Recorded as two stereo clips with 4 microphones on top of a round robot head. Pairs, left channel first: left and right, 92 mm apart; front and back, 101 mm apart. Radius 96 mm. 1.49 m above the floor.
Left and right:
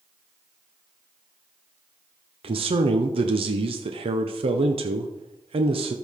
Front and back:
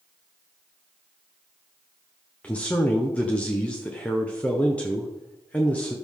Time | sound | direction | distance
2.4 | a man speaking | 80° right | 0.8 m